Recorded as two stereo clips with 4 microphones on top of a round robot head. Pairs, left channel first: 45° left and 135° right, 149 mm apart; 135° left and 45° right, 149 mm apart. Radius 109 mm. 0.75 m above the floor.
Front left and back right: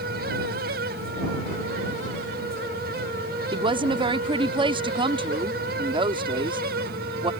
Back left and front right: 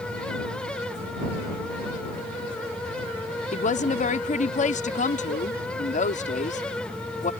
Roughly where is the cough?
I don't hear a cough.